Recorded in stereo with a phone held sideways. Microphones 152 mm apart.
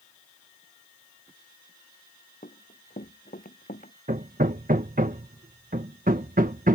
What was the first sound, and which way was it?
Running footsteps, 65° left (ahead or behind).